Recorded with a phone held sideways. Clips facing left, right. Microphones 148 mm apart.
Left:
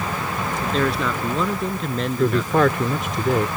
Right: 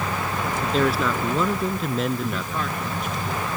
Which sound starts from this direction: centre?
A man speaking, at 0.6 s.